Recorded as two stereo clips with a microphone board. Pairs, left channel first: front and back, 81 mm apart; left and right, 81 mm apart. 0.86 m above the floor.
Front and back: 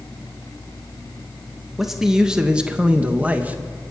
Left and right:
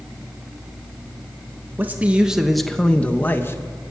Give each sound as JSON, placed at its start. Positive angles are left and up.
{"t": 1.8, "sound": "a man speaking", "azimuth_deg": -100, "distance_m": 0.9}